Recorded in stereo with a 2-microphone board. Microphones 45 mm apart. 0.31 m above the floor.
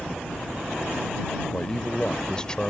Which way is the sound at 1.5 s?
20° left (ahead or behind).